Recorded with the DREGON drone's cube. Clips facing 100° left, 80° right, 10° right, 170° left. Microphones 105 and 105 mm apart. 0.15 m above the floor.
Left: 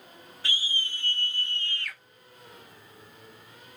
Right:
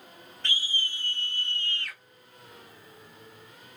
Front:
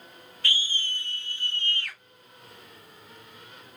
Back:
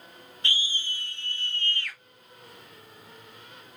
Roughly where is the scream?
Behind.